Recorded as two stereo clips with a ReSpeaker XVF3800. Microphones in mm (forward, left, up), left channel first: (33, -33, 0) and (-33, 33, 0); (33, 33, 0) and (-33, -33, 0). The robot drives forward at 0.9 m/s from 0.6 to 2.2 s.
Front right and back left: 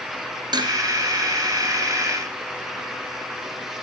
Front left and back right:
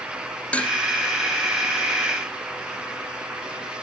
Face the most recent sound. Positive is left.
turn(degrees=150)